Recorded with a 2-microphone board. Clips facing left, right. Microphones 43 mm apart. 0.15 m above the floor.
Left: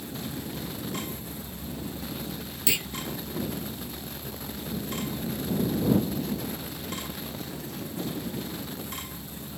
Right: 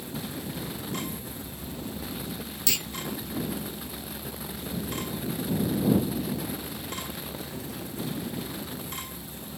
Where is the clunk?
15° left (ahead or behind).